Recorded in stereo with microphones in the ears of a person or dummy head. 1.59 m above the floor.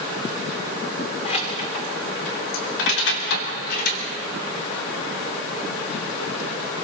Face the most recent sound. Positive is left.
turn(degrees=55)  # may be behind; listen again after turning